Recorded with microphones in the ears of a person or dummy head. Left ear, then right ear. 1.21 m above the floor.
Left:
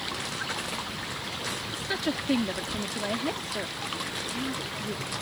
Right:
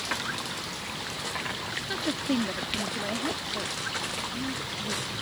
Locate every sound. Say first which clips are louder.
1.7 s a woman speaking: left 1 dB; 15° left (ahead or behind)